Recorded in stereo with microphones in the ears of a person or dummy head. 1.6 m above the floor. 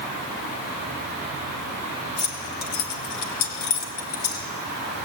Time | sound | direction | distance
2.2 | keys jangling | 25° left (ahead or behind) | 0.9 m